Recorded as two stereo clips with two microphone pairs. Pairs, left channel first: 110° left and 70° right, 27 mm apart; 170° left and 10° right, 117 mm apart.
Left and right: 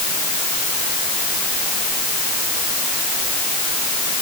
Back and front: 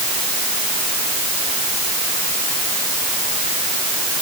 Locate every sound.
Only background noise.